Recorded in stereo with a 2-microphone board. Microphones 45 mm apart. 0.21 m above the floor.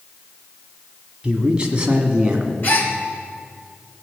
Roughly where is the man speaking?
Right.